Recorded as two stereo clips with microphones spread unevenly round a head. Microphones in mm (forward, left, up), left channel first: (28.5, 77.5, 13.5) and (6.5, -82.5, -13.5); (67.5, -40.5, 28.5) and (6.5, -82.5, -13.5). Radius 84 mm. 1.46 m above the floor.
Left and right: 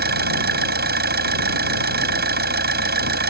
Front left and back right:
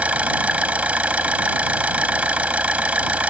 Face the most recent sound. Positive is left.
turn(degrees=-70)